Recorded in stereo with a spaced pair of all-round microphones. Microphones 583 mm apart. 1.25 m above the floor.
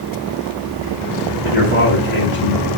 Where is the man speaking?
60° left (ahead or behind), 2 m.